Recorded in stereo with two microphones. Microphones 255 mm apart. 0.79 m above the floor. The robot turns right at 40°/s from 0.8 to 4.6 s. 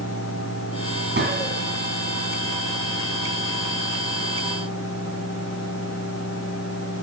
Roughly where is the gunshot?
Right.